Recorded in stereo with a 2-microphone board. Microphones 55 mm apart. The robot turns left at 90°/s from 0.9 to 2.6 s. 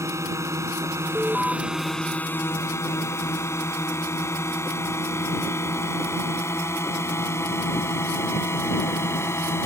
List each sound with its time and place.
0.0 s a drone: 75° right (ahead or behind); by 9.7 s 55° left (ahead or behind)
1.1 s an alarm: 155° right; by 1.6 s 170° left